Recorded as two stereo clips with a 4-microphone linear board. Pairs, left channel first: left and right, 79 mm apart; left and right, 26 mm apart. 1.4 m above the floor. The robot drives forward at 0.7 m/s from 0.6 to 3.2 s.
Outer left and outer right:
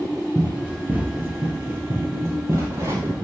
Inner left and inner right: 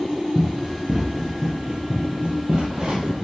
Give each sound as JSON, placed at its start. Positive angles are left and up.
{"t": 0.3, "sound": "running footsteps", "side_deg": -15, "distance_m": 1.7}